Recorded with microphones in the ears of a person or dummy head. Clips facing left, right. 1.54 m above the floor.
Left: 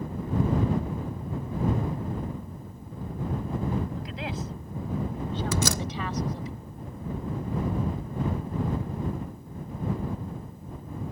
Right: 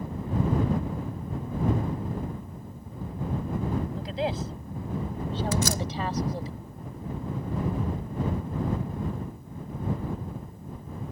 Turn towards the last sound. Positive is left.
turn(degrees=65)  # may be behind; listen again after turning